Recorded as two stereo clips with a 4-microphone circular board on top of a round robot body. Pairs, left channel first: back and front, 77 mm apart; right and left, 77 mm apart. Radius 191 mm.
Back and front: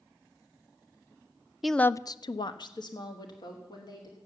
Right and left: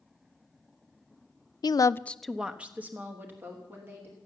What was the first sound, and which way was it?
A woman speaking, 85° right.